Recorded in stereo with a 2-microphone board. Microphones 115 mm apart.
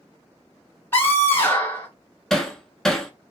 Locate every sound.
0.9 s a scream: 20° left (ahead or behind), 1.1 m
2.3 s hammering: 5° left (ahead or behind), 0.6 m